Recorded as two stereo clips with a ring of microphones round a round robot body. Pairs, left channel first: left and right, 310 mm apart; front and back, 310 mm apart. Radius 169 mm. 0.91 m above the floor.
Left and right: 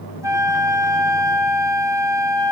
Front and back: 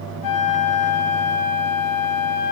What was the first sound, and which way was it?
A flute, 10° right.